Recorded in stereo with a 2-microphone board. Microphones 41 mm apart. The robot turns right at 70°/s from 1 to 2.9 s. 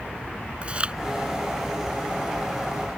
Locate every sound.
0.6 s chewing: 30° right (ahead or behind)